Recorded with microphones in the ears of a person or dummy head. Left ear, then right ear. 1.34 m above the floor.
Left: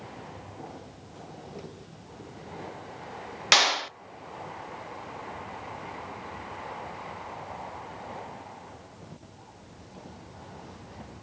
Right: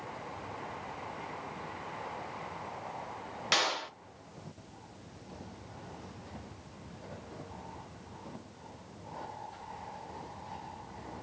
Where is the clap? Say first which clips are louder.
Left 9 dB; 25° left (ahead or behind), 0.5 m.